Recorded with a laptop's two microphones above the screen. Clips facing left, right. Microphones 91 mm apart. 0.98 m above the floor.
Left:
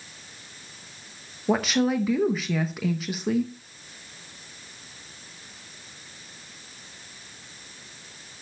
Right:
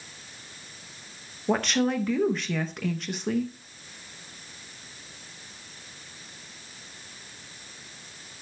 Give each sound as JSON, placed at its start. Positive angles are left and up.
{"t": 1.5, "sound": "a woman speaking", "side_deg": 5, "distance_m": 0.8}